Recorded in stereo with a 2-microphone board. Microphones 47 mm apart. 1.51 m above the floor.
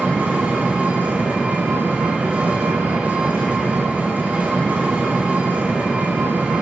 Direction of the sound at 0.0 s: 35° right (ahead or behind).